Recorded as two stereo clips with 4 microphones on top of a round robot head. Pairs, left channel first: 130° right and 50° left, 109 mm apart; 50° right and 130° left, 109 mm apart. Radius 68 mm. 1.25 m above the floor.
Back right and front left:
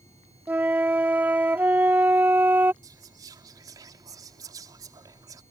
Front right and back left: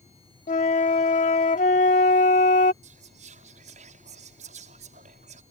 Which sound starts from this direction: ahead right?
A flute, at 0.5 s.